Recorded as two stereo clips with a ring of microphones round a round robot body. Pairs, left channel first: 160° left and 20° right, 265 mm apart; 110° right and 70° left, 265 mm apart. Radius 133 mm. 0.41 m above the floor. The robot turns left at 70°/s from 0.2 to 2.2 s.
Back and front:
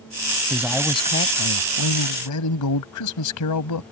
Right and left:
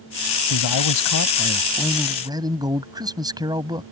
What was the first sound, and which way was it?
A man speaking, 100° right.